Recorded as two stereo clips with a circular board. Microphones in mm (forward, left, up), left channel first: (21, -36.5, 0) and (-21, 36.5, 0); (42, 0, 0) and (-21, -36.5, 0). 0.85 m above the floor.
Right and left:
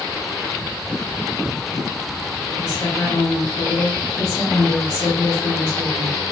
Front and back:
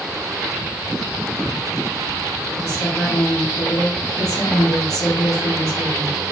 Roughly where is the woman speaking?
Ahead.